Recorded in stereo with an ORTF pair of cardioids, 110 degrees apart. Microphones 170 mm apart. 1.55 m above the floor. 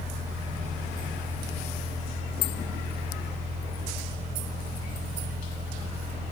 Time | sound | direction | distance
0.0 | a fan | 45° right | 0.9 m